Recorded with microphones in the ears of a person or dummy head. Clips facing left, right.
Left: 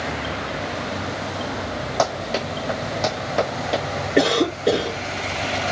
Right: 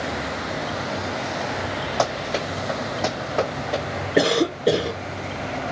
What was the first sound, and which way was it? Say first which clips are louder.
Running footsteps: left 2 dB; centre (ahead or behind).